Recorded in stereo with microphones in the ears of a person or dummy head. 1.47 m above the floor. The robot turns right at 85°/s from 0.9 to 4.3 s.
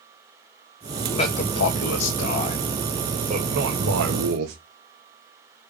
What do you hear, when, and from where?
1.0 s a man speaking: 20° left, 1.4 m; by 4.5 s 60° right, 1.4 m